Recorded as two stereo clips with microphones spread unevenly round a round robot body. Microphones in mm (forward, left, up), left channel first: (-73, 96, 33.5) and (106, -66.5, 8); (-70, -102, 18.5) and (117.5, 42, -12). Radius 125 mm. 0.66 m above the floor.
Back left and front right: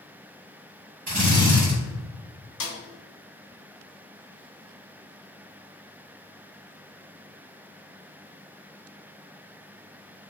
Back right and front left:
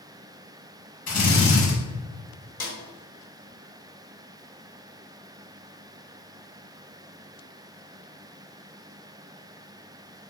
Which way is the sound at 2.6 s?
165° left.